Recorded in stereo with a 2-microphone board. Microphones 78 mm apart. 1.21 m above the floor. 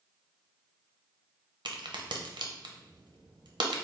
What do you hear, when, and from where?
1.6 s a crack: 80° right, 0.6 m